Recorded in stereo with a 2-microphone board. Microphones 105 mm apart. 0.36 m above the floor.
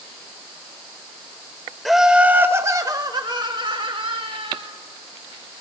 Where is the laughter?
Centre (ahead or behind), 0.9 m; by 4.7 s 60° right (ahead or behind), 1.7 m.